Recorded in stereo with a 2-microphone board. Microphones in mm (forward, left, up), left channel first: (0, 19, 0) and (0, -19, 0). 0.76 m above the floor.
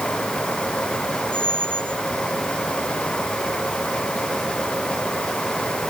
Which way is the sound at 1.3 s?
65° right (ahead or behind).